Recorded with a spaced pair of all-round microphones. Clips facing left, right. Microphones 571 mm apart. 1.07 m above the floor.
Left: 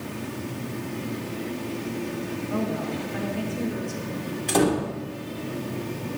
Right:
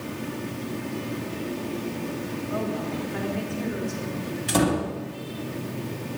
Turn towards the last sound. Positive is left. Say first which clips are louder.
# left 1 dB
turn(degrees=-35)  # may be behind; listen again after turning